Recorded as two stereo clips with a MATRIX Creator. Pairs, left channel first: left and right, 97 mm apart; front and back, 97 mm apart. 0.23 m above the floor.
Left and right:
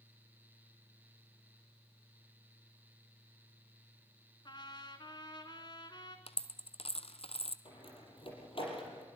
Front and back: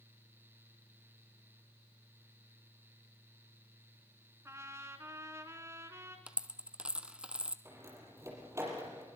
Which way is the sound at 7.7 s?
115° left.